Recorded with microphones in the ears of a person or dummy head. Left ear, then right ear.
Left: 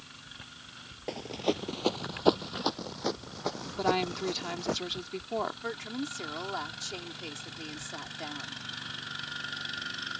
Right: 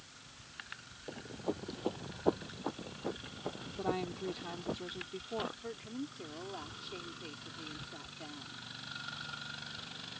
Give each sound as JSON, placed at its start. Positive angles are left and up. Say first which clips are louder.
{"t": 1.1, "sound": "running footsteps", "louder": "left 9 dB", "side_deg": 45}
{"t": 3.8, "sound": "a woman speaking", "louder": "left 8 dB", "side_deg": 60}
{"t": 5.6, "sound": "a woman speaking", "louder": "left 8 dB", "side_deg": 55}